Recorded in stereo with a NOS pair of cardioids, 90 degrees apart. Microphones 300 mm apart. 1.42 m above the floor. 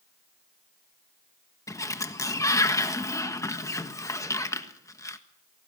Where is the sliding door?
10° left, 1.6 m.